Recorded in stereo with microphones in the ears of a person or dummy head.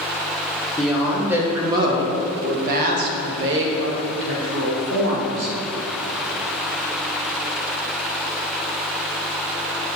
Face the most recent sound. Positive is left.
turn(degrees=-85)